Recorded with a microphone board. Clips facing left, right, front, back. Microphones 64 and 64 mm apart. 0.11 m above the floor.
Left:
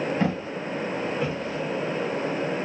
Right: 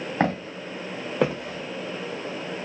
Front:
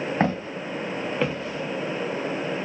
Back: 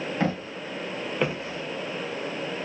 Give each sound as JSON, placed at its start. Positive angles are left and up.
{"t": 0.2, "sound": "footsteps", "azimuth_deg": -55, "distance_m": 1.2}